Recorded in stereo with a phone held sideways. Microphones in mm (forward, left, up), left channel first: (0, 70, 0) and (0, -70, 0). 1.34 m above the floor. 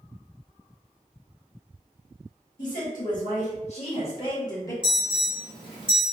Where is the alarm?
40° left (ahead or behind), 1.4 m.